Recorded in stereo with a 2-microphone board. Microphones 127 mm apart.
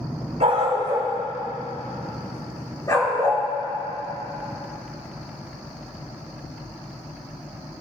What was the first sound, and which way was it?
A dog barking, 55° right (ahead or behind).